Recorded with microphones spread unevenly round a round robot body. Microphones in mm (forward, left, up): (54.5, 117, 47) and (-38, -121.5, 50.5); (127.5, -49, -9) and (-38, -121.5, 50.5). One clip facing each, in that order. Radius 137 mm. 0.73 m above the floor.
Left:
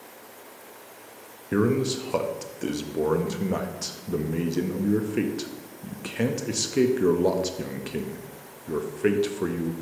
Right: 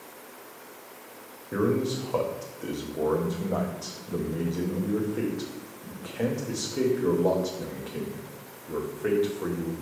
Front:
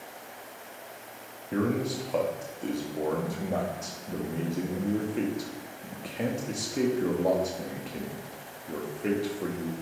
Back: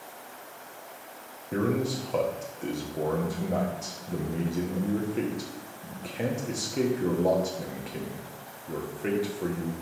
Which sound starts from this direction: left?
A man speaking, at 1.5 s.